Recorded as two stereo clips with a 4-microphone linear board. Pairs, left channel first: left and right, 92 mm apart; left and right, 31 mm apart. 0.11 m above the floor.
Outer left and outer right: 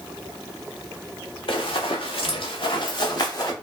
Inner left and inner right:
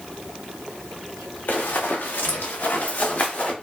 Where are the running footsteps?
75° left (ahead or behind), 1.1 m; by 3.5 s 40° left (ahead or behind), 1.3 m.